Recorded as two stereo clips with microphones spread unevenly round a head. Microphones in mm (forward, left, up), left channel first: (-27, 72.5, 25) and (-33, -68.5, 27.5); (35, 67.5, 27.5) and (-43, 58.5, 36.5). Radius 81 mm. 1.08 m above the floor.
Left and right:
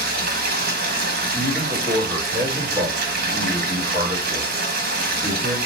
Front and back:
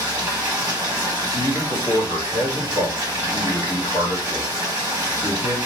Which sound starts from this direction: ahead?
A man speaking, at 1.3 s.